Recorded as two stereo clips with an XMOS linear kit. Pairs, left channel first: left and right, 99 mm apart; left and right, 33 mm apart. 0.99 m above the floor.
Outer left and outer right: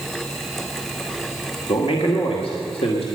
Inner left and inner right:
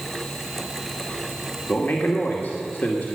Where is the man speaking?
75° left (ahead or behind), 2 m.